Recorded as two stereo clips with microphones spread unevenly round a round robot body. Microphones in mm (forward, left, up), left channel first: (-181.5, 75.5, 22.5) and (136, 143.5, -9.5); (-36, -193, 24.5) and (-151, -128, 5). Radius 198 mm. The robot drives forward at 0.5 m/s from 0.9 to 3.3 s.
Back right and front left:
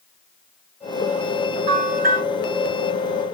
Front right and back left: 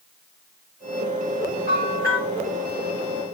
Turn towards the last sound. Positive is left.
turn(degrees=20)